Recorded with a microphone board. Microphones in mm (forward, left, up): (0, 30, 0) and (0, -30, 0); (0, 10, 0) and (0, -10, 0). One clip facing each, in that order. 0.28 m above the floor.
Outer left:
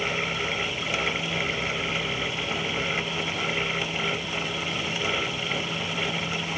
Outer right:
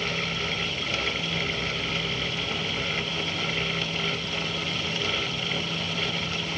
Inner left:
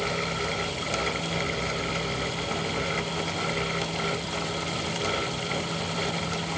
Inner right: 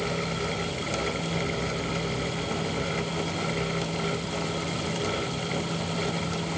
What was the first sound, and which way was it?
Only background noise.